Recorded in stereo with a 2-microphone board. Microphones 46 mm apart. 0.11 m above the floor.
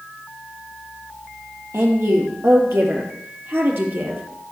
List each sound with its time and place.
1.7 s a woman speaking: 65° right (ahead or behind), 2.5 m; by 4.2 s 45° right (ahead or behind), 2.5 m